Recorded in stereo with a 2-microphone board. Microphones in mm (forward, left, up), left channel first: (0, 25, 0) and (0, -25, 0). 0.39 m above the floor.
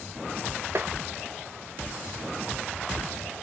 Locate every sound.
0.8 s tapping: 50° right (ahead or behind), 0.5 m